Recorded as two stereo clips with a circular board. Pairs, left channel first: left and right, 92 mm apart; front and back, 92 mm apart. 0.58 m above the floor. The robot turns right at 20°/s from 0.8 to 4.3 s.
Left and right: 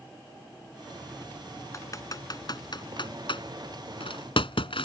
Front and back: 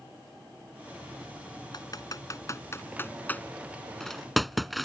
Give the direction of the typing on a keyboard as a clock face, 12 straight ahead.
11 o'clock.